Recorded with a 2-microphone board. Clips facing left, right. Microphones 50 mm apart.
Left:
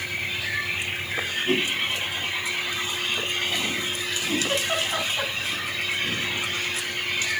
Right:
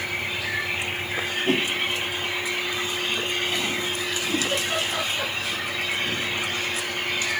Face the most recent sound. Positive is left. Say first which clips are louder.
# left 1 dB
turn(degrees=30)  # may be behind; listen again after turning